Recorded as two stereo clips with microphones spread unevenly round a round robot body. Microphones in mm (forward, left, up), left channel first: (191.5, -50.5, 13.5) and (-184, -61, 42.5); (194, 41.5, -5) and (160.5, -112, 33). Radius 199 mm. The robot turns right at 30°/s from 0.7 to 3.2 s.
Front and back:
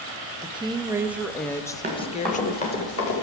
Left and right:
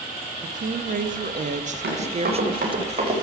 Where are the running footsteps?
105° right, 5 m; by 3.2 s 45° right, 5.5 m.